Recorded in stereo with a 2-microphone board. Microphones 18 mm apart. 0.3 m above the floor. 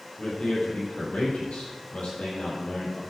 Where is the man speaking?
80° left, 7 m; by 3.0 s 70° left (ahead or behind), 8 m.